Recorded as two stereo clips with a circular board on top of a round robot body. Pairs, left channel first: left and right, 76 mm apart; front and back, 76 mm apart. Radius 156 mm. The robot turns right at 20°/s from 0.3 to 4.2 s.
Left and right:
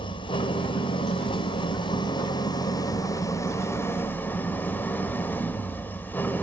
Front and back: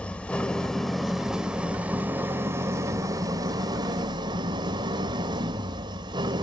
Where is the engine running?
75° left, 1.2 m; by 6.4 s 155° left, 1.2 m.